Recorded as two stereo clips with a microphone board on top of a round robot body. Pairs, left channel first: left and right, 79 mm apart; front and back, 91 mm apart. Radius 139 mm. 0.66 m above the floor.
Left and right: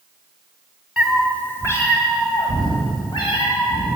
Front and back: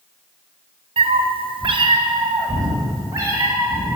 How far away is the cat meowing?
About 1.2 m.